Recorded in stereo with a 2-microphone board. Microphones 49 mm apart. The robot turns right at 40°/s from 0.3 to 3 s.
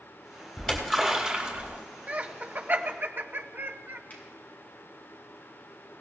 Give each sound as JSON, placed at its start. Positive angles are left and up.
{"t": 0.6, "sound": "a splash", "azimuth_deg": 175, "distance_m": 3.0}
{"t": 2.1, "sound": "laughter", "side_deg": -30, "distance_m": 0.8}
{"t": 4.1, "sound": "a finger snap", "side_deg": 35, "distance_m": 5.5}